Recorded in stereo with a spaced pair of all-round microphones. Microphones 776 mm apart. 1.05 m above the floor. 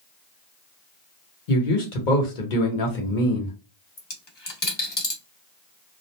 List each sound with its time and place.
1.5 s a man speaking: 80° left, 1.1 m
4.0 s a dropped coin: 35° left (ahead or behind), 0.8 m